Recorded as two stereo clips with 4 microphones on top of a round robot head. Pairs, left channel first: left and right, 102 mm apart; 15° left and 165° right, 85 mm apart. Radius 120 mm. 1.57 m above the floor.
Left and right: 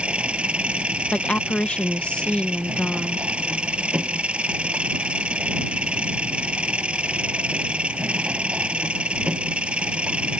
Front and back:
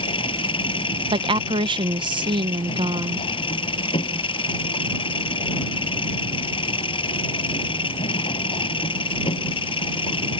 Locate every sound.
0.0 s an engine running: 10° right
1.1 s a woman speaking: 170° left